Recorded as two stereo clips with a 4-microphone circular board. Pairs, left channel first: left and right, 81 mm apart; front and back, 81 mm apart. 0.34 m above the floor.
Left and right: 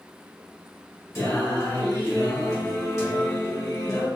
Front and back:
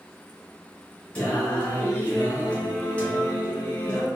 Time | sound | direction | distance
1.1 | singing | 65° left | 1.0 m